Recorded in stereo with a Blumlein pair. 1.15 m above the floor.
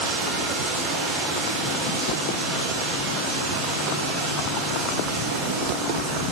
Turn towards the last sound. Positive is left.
turn(degrees=-30)